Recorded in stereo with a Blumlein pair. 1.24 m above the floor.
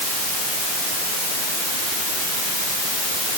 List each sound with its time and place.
Only background noise.